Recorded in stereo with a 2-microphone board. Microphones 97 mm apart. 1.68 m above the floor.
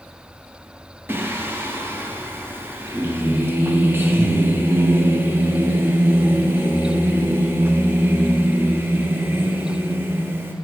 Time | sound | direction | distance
1.1 | singing | 25° right (ahead or behind) | 0.5 m